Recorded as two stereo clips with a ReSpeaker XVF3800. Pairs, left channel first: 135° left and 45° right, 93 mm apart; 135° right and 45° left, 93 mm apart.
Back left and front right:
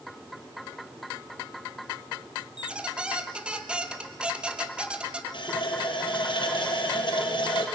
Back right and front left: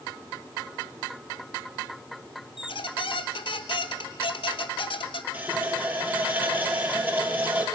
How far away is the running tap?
About 3 m.